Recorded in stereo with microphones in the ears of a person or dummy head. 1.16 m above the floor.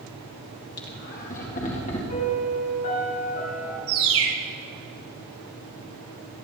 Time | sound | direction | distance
0.8 | laughter | 50° left (ahead or behind) | 1.6 m
2.1 | a piano | 50° left (ahead or behind) | 5 m
3.9 | a bird | 65° right (ahead or behind) | 1.8 m